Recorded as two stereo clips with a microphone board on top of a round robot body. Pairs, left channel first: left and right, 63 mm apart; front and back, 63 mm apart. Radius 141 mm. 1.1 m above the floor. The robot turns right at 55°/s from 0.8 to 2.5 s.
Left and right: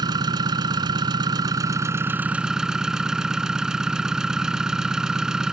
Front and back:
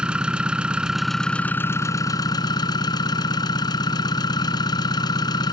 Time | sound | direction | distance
0.0 | an engine running | 100° right | ?